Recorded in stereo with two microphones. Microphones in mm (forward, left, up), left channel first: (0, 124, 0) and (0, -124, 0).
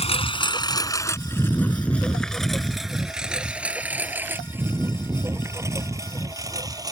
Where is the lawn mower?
25° left (ahead or behind); by 6.9 s 15° right (ahead or behind).